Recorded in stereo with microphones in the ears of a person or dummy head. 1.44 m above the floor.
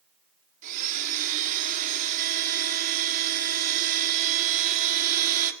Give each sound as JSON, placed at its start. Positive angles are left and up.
{"t": 0.6, "sound": "a blender", "side_deg": -40, "distance_m": 1.6}